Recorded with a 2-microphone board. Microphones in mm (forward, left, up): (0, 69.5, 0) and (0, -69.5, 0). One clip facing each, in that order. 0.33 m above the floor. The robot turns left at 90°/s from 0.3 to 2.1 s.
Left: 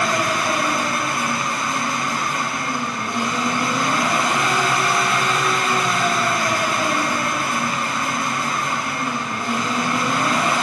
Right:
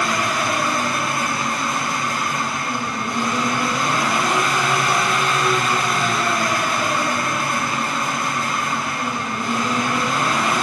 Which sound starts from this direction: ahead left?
An engine running, at 0.0 s.